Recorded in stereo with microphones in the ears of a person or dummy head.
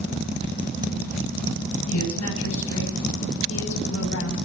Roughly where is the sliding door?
Right.